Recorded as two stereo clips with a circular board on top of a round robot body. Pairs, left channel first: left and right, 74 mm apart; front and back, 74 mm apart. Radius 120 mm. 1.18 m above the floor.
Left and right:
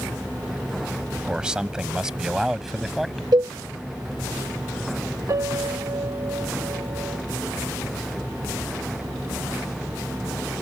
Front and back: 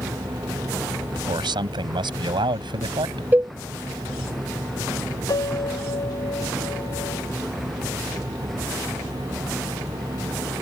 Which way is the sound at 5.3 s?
40° right.